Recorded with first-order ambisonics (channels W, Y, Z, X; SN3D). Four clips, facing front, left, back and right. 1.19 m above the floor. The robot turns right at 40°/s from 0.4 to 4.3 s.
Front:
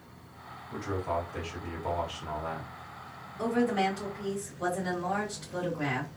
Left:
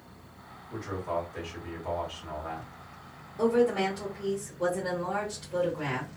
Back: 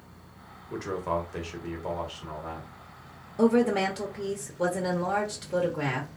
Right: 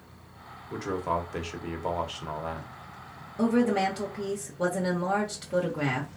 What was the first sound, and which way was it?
A man speaking, 140° right.